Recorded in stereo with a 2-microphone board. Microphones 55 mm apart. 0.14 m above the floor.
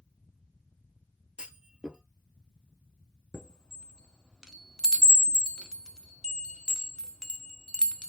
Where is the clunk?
20° right (ahead or behind), 0.5 m.